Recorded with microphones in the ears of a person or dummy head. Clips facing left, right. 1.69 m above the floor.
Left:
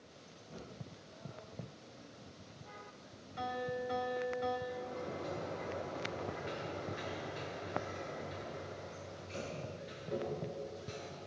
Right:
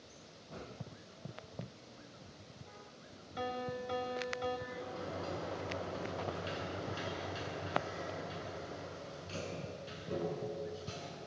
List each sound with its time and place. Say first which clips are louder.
3.4 s a piano: left 1 dB; 60° right (ahead or behind), 5 m
4.7 s a sliding door: left 1 dB; 55° right (ahead or behind), 9.5 m